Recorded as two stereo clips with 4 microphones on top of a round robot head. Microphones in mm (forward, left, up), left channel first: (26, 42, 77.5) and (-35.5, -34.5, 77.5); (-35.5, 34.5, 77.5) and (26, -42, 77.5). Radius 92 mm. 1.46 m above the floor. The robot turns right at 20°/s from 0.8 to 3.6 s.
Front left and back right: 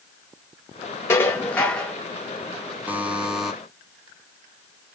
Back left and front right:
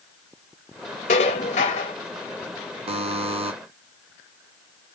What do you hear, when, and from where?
1.1 s dishes clattering: 120° left, 0.7 m; by 1.9 s 135° left, 0.7 m
2.9 s a buzzer: 55° right, 0.8 m; by 3.5 s 40° right, 0.8 m